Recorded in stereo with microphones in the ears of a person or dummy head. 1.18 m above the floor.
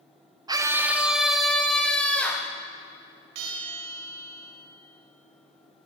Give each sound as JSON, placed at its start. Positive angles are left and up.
{"t": 0.5, "sound": "a scream", "side_deg": -15, "distance_m": 0.6}
{"t": 3.4, "sound": "a bell", "side_deg": -65, "distance_m": 3.0}